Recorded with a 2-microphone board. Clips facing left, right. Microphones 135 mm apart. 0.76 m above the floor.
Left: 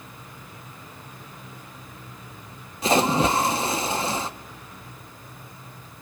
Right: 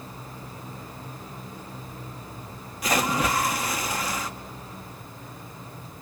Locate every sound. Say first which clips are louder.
2.8 s a splash: left 5 dB; 25° left (ahead or behind), 0.6 m